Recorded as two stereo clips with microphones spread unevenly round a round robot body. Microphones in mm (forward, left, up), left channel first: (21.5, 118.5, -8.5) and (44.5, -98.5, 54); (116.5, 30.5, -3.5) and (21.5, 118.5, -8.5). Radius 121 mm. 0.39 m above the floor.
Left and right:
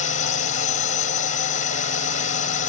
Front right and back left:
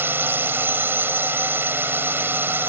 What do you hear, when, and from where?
0.0 s a drone: 70° left